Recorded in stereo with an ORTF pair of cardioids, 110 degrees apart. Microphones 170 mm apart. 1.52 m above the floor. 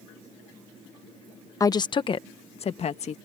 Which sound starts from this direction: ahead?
A woman speaking, at 1.6 s.